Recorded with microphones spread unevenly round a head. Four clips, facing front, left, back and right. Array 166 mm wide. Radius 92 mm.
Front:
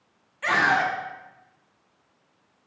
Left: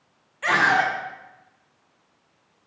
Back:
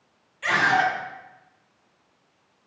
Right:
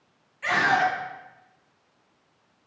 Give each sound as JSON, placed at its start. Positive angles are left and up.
{"t": 0.4, "sound": "a scream", "azimuth_deg": 50, "distance_m": 2.5}